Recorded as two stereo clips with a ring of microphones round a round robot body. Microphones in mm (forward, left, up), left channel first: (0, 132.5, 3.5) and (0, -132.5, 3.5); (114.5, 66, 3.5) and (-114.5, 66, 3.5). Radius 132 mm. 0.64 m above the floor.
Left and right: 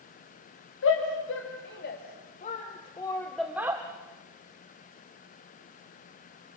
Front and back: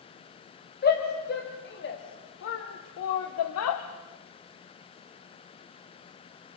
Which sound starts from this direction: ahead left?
A shout, at 0.8 s.